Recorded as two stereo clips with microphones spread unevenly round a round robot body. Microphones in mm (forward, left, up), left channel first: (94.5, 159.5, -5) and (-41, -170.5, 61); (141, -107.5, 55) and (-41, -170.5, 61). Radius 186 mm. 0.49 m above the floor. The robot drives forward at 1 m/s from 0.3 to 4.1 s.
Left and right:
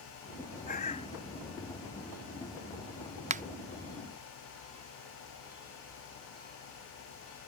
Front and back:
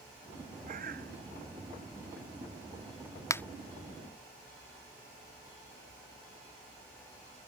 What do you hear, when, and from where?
0.7 s a bird: 135° left; by 1.1 s 145° left
3.3 s a finger snap: 35° right; by 3.4 s 55° right